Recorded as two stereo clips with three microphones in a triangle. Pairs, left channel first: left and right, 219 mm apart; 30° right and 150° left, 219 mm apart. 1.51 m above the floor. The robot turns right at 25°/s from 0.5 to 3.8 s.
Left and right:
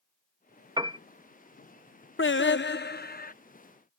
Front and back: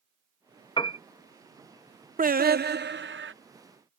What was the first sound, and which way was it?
A piano, 55° right.